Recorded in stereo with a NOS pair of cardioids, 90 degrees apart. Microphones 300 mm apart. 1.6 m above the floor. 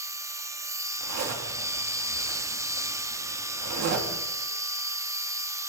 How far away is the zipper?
About 3.5 m.